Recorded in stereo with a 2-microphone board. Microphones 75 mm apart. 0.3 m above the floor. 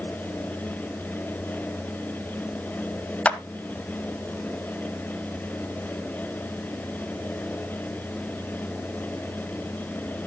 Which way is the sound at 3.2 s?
20° left (ahead or behind).